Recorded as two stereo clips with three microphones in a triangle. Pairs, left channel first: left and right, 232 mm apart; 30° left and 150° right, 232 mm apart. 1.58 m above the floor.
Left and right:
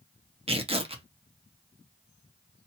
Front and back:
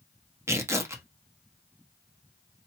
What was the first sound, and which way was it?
Tearing paper, 85° right.